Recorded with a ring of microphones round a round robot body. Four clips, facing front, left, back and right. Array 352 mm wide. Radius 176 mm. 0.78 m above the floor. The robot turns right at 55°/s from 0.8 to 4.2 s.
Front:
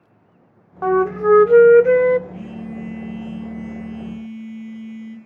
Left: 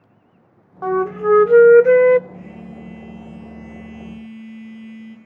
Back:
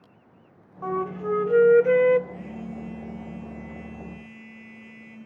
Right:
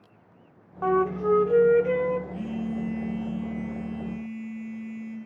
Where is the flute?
10° left, 0.6 m; by 2.2 s 85° left, 0.6 m.